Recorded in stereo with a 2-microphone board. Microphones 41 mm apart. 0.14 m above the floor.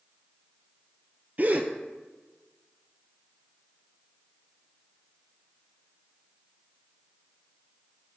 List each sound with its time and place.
1.4 s a gasp: 40° right (ahead or behind), 0.7 m